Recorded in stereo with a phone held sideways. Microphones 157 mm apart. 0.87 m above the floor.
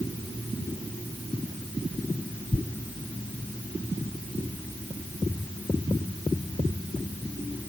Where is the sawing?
I don't hear sawing.